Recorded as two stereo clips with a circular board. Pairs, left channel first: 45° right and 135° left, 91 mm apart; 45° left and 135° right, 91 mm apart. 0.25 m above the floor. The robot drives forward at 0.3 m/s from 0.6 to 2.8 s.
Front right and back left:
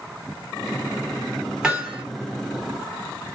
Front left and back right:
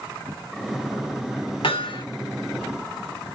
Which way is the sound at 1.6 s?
55° left.